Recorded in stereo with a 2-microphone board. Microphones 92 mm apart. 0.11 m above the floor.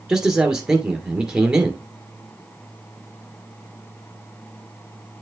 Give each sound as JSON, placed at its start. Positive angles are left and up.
{"t": 0.1, "sound": "a man speaking", "side_deg": -5, "distance_m": 1.8}